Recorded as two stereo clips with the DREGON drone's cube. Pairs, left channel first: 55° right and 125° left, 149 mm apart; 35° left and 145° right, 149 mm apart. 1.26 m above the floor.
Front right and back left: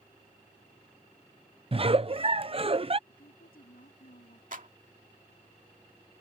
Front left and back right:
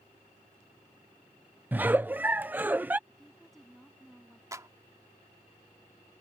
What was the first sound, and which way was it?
A giggle, 140° left.